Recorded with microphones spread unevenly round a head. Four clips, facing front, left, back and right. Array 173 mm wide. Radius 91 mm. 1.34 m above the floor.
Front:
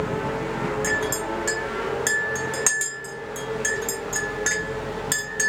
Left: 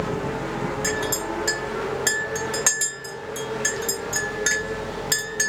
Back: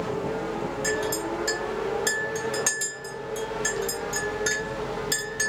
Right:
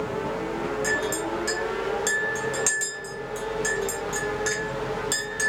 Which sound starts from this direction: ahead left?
A clink, at 0.8 s.